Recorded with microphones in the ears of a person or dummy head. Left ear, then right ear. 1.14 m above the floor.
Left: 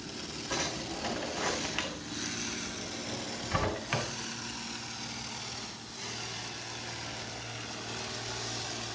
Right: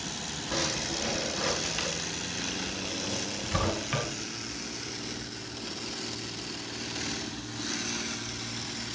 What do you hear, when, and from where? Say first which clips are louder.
0.5 s a drawer: right 4 dB; 25° left (ahead or behind), 2 m